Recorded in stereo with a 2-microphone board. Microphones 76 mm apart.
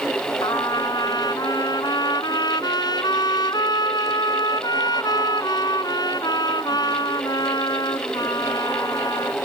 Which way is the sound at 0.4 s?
70° left (ahead or behind).